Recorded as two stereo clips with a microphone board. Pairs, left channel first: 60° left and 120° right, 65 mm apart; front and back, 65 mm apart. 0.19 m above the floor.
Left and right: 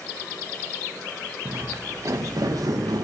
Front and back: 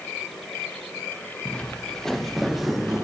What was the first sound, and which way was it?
Footsteps, 65° right.